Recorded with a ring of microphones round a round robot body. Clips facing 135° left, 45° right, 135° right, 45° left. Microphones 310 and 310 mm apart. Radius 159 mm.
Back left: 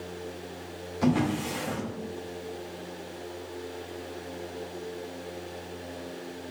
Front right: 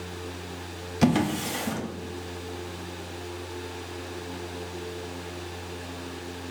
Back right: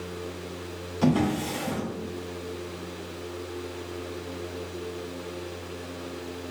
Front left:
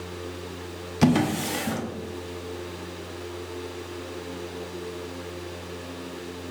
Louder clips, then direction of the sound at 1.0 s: Front right 2 dB, front left 2 dB; 5° right.